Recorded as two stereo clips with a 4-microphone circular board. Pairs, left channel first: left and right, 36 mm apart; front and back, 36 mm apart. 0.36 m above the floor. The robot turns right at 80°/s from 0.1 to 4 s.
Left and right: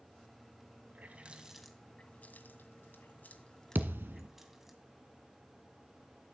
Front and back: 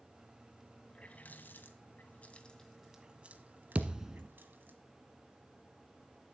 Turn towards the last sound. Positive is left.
turn(degrees=-110)